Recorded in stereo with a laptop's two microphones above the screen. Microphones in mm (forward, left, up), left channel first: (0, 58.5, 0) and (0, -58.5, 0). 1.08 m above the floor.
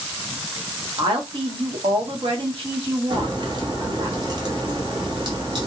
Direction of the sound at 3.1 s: 40° right (ahead or behind).